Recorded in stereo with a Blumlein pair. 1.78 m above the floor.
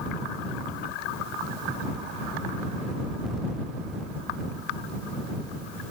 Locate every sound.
Only background noise.